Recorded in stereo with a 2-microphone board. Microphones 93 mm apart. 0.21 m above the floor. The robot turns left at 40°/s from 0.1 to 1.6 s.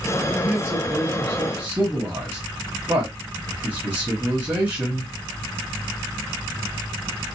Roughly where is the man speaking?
Centre.